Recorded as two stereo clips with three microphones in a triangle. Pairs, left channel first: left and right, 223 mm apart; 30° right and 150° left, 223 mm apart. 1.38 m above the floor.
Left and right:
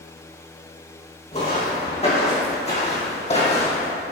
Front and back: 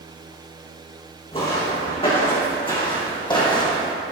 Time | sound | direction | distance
1.3 | footsteps | 30° left | 3.5 m